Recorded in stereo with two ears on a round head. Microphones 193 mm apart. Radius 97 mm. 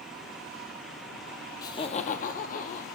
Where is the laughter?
15° left (ahead or behind), 0.7 m; by 2.9 s 35° left (ahead or behind), 1.2 m.